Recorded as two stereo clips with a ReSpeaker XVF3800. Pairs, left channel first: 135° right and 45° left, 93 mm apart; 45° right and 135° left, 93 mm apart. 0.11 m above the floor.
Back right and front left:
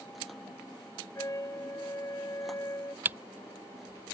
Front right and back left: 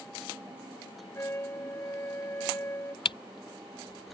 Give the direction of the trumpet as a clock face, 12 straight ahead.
3 o'clock.